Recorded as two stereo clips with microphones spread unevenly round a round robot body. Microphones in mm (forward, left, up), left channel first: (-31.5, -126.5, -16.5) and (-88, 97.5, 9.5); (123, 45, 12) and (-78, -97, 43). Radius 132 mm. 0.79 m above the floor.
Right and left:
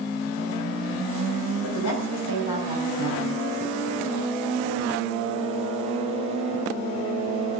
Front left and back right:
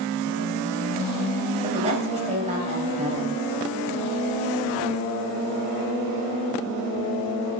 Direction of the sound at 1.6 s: 80° right.